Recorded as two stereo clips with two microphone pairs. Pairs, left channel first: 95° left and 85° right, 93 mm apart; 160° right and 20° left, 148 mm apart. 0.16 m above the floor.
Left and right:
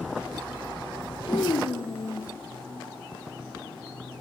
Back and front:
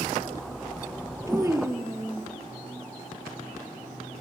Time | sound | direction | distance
1.3 | a child speaking | 85° left | 3 m